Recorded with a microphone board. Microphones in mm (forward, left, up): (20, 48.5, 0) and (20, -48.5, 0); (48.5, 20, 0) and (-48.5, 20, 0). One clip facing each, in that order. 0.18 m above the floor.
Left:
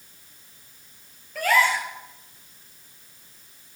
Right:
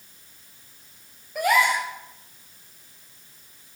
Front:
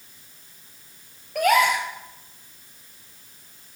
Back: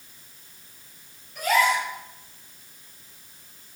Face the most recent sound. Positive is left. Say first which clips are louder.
# right 1 dB, front 3 dB
turn(degrees=-20)